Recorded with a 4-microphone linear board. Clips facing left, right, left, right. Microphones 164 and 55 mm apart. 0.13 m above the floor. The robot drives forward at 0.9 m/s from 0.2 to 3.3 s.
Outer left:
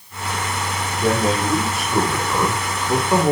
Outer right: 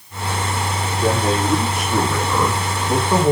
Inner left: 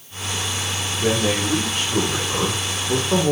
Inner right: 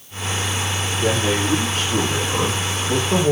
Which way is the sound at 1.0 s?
Centre (ahead or behind).